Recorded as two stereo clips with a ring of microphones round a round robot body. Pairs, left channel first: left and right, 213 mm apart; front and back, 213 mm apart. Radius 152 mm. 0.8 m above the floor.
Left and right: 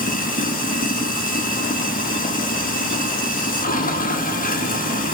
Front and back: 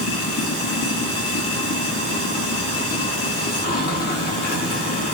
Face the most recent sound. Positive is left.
turn(degrees=45)